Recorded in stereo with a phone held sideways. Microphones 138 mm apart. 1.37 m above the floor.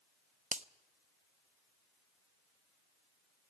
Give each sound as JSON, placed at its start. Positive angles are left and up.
{"t": 0.5, "sound": "a finger snap", "side_deg": -60, "distance_m": 0.7}